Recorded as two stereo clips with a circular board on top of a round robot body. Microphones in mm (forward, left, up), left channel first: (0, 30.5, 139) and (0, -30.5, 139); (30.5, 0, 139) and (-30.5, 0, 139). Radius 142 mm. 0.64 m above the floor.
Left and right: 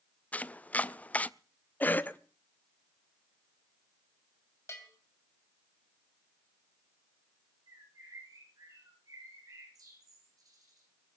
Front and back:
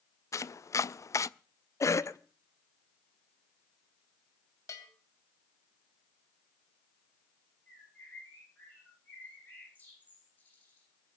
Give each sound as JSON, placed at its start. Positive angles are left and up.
{"t": 0.3, "sound": "chopping", "azimuth_deg": 25, "distance_m": 0.5}
{"t": 1.8, "sound": "a cough", "azimuth_deg": 30, "distance_m": 1.1}
{"t": 4.7, "sound": "a bell", "azimuth_deg": 40, "distance_m": 3.0}
{"t": 7.7, "sound": "a bird", "azimuth_deg": -65, "distance_m": 8.5}